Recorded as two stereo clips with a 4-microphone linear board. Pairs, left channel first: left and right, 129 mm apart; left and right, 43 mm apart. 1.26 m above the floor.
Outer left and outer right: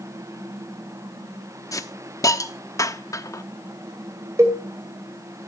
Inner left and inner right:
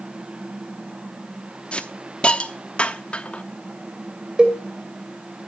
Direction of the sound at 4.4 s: 25° right (ahead or behind).